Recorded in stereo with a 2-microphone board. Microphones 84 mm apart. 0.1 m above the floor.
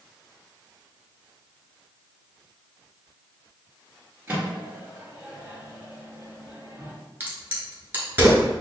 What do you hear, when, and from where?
4.3 s a microwave: 20° right (ahead or behind), 1.7 m
7.2 s a crack: 20° right (ahead or behind), 1.2 m